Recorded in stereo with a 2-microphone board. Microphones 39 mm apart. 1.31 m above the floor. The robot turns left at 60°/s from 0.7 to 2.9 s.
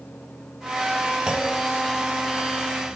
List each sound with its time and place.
1.3 s a clunk: 20° right (ahead or behind), 1.1 m; by 1.6 s 40° right (ahead or behind), 1.1 m